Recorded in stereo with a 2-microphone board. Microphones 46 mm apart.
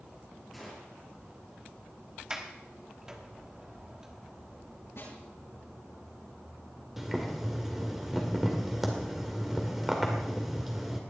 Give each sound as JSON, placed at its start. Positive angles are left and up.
{"t": 0.5, "sound": "a gunshot", "side_deg": 0, "distance_m": 5.0}
{"t": 2.3, "sound": "a sliding door", "side_deg": -15, "distance_m": 1.2}
{"t": 5.0, "sound": "a snare drum", "side_deg": 65, "distance_m": 8.5}
{"t": 7.0, "sound": "boiling", "side_deg": -5, "distance_m": 2.0}